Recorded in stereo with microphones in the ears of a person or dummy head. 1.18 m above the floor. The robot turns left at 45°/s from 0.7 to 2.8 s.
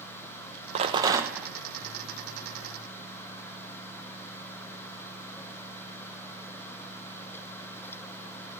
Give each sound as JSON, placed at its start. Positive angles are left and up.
{"t": 0.8, "sound": "a rattle", "azimuth_deg": -145, "distance_m": 0.8}